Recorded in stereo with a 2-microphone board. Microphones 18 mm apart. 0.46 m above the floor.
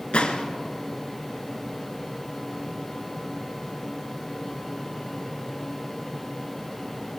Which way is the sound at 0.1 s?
75° left (ahead or behind).